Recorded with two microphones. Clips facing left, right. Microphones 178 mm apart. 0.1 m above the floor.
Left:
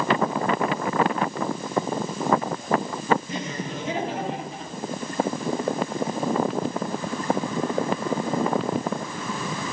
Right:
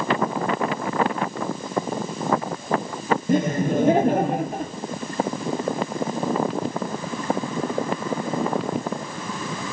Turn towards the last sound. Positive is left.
turn(degrees=-55)  # may be behind; listen again after turning